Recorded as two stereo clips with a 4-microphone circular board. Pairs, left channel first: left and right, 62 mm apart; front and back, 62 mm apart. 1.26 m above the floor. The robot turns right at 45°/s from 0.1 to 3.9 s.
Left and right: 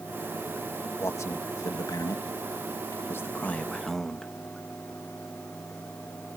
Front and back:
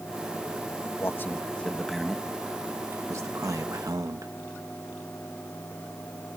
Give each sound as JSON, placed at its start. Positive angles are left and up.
{"t": 1.0, "sound": "a man speaking", "azimuth_deg": 45}